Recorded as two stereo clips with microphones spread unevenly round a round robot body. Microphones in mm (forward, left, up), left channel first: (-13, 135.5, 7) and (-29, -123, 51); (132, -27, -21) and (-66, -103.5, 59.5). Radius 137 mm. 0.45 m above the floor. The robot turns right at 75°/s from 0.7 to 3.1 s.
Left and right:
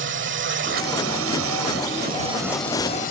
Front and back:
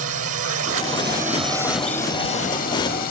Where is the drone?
140° right; by 3.1 s 40° left.